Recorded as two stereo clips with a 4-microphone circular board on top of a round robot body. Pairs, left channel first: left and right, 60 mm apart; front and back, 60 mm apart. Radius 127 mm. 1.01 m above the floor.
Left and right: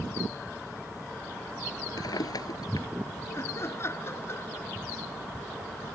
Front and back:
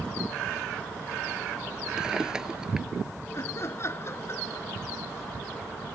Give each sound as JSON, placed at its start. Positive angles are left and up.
{"t": 2.0, "sound": "a drawer", "azimuth_deg": 100}
{"t": 3.3, "sound": "laughter", "azimuth_deg": 45}